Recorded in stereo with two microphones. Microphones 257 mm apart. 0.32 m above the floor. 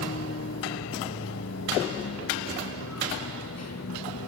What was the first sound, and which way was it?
A vehicle, 70° left (ahead or behind).